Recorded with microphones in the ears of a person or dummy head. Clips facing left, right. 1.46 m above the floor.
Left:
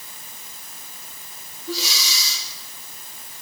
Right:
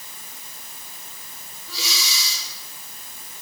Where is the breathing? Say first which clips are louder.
Left 5 dB; 40° left (ahead or behind), 6.5 m.